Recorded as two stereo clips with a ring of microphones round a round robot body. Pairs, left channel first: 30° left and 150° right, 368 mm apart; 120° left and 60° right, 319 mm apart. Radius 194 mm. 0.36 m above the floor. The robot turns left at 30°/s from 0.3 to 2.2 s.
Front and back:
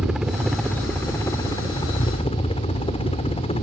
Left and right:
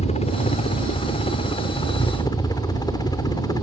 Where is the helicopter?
125° left; by 3.6 s 70° left.